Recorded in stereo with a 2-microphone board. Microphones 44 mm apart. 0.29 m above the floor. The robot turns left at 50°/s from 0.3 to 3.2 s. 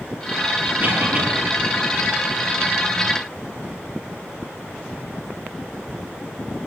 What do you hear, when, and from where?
0.8 s a cough: 60° right (ahead or behind), 7.5 m; by 1.3 s 35° right (ahead or behind), 7.5 m